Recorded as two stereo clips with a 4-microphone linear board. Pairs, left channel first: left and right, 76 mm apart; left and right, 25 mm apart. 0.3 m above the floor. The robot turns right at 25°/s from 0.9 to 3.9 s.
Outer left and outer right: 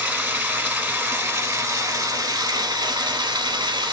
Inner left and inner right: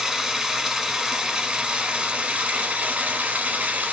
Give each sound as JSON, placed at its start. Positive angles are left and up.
{"t": 0.0, "sound": "running water", "azimuth_deg": -155, "distance_m": 0.8}